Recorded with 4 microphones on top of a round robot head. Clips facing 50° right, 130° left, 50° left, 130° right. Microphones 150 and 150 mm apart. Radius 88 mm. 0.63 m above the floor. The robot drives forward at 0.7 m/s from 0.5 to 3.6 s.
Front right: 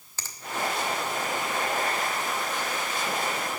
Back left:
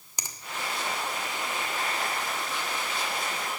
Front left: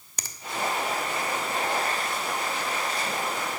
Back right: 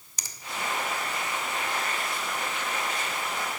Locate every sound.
0.2 s a finger snap: 60° left, 1.1 m